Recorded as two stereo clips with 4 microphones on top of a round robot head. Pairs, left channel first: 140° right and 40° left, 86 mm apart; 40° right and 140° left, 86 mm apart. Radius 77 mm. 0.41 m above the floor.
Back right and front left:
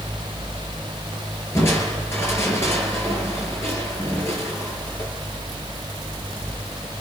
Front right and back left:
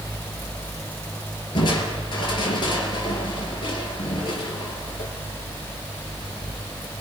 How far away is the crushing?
About 4.5 m.